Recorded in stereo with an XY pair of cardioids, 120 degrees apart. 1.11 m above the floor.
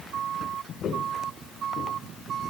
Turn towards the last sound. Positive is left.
turn(degrees=55)